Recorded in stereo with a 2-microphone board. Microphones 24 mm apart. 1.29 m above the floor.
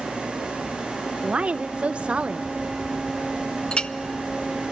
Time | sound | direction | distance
1.2 | a woman speaking | 50° right (ahead or behind) | 0.6 m
3.7 | a clink | 45° left (ahead or behind) | 0.5 m